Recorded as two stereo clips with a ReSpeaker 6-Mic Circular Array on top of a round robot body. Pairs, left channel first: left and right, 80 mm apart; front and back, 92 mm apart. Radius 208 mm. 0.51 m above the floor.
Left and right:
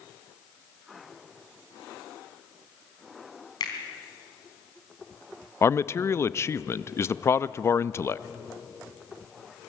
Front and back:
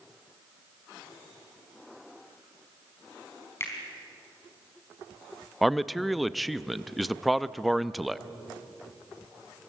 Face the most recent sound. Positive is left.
turn(degrees=90)